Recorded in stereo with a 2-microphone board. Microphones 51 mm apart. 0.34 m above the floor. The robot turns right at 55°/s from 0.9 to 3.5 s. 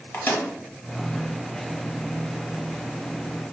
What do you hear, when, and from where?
0.1 s a microwave: 45° left (ahead or behind), 1.1 m